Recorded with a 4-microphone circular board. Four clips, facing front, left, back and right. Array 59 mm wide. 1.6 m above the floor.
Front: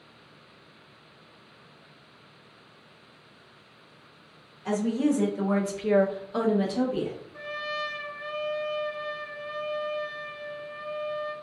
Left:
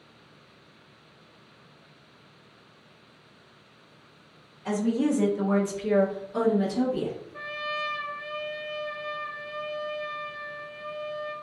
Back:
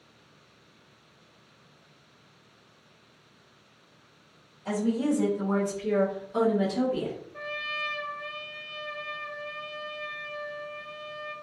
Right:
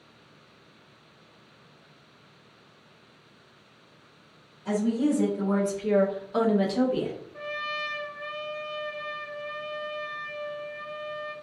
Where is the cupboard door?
I don't hear a cupboard door.